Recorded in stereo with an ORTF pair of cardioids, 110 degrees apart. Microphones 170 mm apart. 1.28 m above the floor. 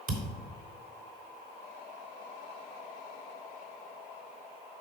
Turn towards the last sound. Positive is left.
turn(degrees=-65)